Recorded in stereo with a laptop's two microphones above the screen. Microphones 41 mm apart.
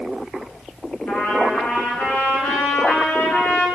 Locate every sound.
1.1 s a trumpet: 65° left (ahead or behind), 6.5 m